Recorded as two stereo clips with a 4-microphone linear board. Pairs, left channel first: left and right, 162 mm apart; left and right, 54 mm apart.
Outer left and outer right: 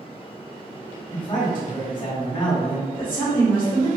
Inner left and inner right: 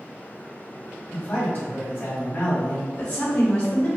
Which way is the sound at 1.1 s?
30° left (ahead or behind).